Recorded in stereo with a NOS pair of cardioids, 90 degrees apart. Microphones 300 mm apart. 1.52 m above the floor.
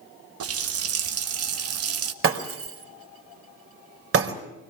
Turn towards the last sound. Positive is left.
turn(degrees=-50)